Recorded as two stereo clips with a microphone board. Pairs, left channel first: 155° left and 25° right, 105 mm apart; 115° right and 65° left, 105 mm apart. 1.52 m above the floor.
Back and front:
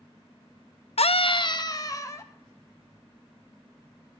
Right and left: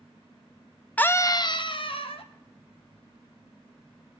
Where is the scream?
170° left, 0.5 m; by 2.3 s 140° right, 1.4 m.